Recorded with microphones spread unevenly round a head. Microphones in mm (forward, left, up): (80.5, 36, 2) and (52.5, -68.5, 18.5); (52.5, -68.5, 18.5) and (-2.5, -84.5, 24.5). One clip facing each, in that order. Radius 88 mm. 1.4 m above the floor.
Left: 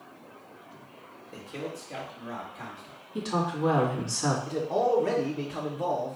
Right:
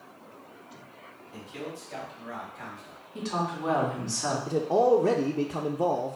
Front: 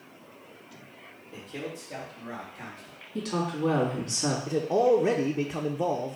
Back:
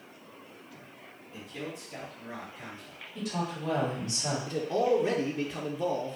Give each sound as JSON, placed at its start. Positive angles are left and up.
{"t": 1.3, "sound": "a man speaking", "azimuth_deg": 35, "distance_m": 1.8}
{"t": 3.1, "sound": "a woman speaking", "azimuth_deg": 5, "distance_m": 2.0}
{"t": 4.5, "sound": "a man speaking", "azimuth_deg": -50, "distance_m": 0.6}